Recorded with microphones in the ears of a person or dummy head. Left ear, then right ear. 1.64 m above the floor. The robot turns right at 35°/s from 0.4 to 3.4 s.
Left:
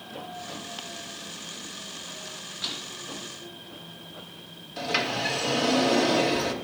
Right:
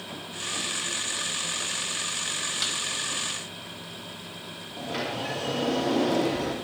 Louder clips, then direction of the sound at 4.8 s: Left 5 dB; 65° left (ahead or behind).